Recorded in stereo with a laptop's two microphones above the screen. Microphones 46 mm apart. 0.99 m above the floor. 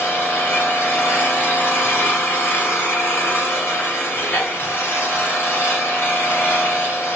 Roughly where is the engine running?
Left.